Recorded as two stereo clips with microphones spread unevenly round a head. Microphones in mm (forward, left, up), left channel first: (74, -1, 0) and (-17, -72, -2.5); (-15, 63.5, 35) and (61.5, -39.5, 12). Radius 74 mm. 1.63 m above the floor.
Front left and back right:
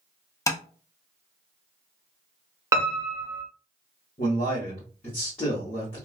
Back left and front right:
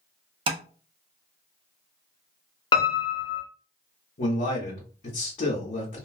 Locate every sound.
0.5 s tapping: 5° right, 0.6 m
2.7 s a piano: 160° left, 0.7 m
4.2 s a man speaking: 95° left, 1.1 m